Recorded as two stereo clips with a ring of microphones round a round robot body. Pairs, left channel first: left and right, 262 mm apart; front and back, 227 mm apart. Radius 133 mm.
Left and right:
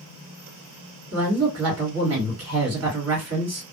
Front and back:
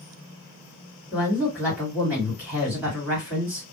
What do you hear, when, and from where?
1.1 s a woman speaking: 100° right, 1.9 m